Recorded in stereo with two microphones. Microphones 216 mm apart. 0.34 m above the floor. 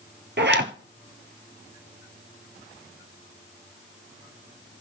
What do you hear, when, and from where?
0.4 s a zipper: 65° right (ahead or behind), 1.0 m